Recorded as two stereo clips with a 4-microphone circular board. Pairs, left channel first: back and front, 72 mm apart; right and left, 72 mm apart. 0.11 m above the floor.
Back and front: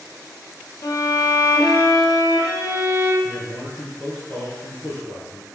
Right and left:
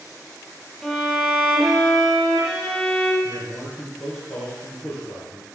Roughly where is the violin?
Behind.